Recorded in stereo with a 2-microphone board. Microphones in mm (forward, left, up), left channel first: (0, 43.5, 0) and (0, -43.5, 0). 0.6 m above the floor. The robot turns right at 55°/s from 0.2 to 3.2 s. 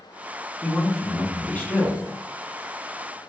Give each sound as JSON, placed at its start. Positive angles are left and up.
{"t": 0.6, "sound": "a man speaking", "side_deg": 0, "distance_m": 0.6}